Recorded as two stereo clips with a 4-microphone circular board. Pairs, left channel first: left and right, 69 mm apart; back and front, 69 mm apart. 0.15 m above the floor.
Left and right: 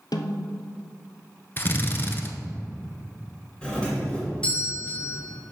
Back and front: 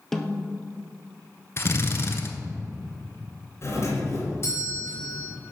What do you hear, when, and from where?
0.1 s a snare drum: 95° left, 0.6 m
1.6 s a drill: 140° left, 0.8 m
3.6 s a doorbell: 160° left, 2.5 m